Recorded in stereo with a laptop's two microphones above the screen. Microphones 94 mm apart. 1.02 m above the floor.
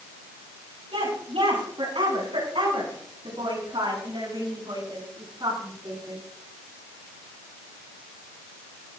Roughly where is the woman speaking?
Right.